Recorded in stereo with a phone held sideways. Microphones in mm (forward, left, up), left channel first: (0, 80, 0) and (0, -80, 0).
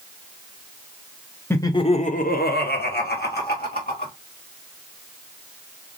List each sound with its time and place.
1.5 s laughter: 15° left (ahead or behind), 0.8 m; by 4.1 s 70° left (ahead or behind), 2 m